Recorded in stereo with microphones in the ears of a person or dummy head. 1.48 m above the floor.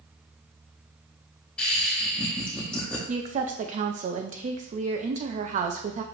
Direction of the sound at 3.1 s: 40° right (ahead or behind).